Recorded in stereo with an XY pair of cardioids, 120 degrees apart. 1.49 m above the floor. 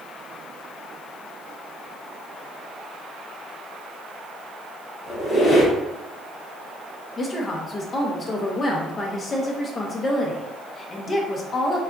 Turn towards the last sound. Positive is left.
turn(degrees=30)